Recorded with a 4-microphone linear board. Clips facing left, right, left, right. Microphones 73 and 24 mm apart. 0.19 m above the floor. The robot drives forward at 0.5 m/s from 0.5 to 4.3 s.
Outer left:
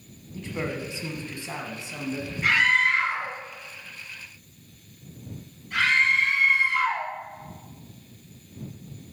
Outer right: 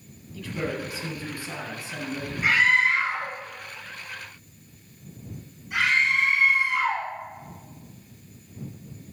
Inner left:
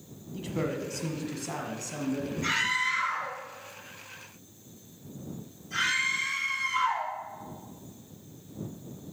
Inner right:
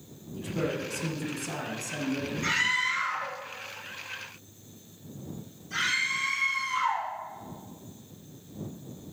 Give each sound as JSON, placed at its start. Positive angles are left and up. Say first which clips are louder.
{"t": 0.3, "sound": "a man speaking", "louder": "outer right 1 dB, inner right 1 dB", "side_deg": 25, "distance_m": 1.1}
{"t": 2.4, "sound": "a scream", "louder": "outer right 1 dB, inner right 1 dB", "side_deg": -15, "distance_m": 3.0}